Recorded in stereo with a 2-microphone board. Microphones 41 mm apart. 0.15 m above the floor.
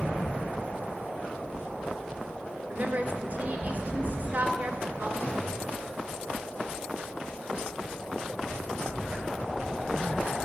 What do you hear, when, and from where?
2.7 s a woman speaking: 45° right (ahead or behind), 1.7 m
5.2 s a gunshot: 45° left (ahead or behind), 4.5 m